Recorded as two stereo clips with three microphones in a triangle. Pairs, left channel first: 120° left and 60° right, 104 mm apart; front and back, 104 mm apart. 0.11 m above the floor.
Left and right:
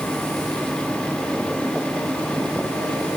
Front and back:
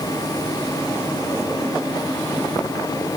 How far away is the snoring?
I don't hear snoring.